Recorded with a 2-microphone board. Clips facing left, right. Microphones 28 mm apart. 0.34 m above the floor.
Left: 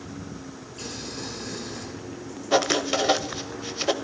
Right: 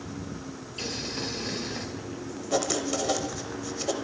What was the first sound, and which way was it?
Boiling, 40° right (ahead or behind).